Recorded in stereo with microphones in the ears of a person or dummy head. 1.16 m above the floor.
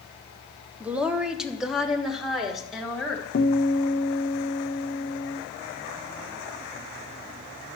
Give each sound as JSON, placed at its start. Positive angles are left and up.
{"t": 0.8, "sound": "a woman speaking", "side_deg": -5, "distance_m": 0.7}
{"t": 3.3, "sound": "a guitar", "side_deg": 50, "distance_m": 0.8}